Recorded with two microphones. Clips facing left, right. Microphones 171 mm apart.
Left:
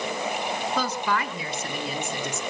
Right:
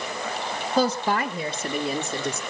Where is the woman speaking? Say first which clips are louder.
Right 7 dB; 30° right (ahead or behind), 1.5 m; by 2.4 s 25° right (ahead or behind), 1.8 m.